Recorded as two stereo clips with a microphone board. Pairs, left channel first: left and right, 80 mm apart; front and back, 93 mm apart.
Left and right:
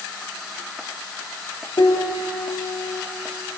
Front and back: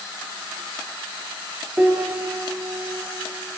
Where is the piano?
110° left, 4 m.